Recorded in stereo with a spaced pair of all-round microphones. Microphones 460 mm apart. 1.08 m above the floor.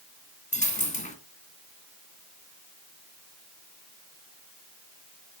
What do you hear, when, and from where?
0.5 s a dropped coin: 15° left (ahead or behind), 1.1 m